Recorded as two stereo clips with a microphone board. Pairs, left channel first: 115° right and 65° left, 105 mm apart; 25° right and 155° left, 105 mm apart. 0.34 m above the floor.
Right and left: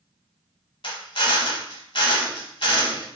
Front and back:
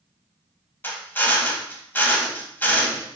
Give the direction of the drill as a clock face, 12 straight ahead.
3 o'clock.